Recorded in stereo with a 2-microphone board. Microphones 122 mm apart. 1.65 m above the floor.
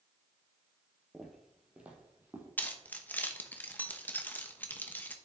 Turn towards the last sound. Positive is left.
turn(degrees=15)  # may be behind; listen again after turning